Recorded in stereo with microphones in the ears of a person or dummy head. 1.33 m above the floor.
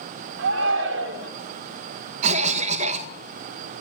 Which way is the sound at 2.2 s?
45° right (ahead or behind).